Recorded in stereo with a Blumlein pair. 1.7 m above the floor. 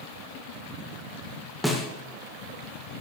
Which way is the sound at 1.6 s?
Straight ahead.